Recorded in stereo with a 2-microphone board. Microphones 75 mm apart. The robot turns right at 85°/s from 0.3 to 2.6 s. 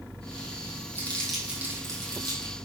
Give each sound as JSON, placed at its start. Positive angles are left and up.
{"t": 0.9, "sound": "crumpling", "side_deg": 30, "distance_m": 4.5}